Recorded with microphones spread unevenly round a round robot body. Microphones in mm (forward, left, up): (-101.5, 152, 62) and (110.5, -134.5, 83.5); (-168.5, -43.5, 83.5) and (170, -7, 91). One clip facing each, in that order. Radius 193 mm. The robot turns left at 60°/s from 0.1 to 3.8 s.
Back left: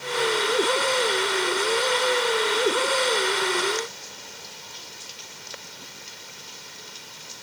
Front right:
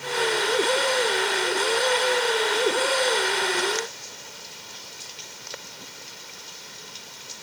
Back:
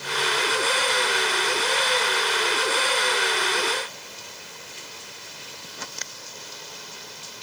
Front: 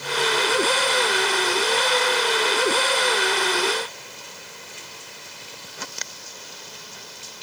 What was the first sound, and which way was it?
Only background noise.